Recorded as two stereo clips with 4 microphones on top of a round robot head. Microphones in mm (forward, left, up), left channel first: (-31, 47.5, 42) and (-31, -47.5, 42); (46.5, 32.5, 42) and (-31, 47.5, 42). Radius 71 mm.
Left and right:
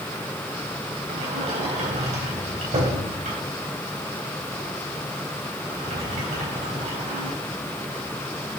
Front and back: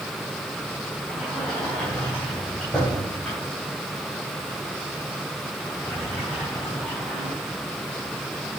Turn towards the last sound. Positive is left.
turn(degrees=-95)